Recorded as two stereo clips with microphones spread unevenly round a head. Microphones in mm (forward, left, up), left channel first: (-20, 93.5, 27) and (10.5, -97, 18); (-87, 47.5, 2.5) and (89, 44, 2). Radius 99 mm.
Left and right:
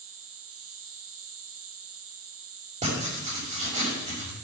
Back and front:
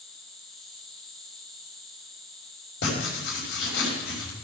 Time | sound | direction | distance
0.0 | an insect | 90° right | 1.6 m
2.8 | writing | 140° right | 5.5 m